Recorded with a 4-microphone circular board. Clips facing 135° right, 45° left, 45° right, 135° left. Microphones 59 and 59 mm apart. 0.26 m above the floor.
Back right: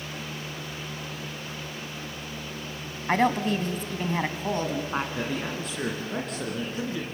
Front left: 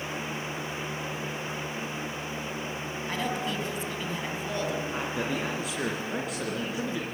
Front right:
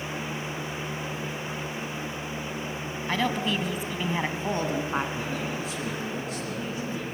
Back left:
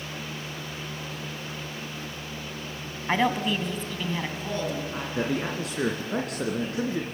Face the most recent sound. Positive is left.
turn(degrees=130)